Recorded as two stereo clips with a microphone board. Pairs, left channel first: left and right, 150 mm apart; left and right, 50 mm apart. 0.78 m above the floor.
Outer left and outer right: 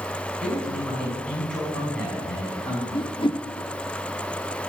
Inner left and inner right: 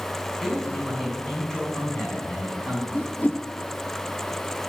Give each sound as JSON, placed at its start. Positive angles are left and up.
{"t": 0.4, "sound": "a man speaking", "side_deg": 5, "distance_m": 6.5}
{"t": 2.9, "sound": "a whoosh", "side_deg": 35, "distance_m": 0.6}